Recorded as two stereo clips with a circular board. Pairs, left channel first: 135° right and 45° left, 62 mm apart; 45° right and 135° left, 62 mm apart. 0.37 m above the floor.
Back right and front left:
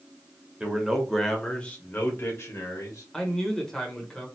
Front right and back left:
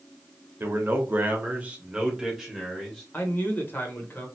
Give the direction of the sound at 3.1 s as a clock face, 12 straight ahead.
2 o'clock.